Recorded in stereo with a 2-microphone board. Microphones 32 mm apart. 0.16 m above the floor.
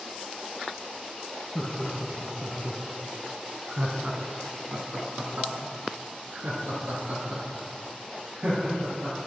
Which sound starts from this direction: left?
Laughter, at 1.6 s.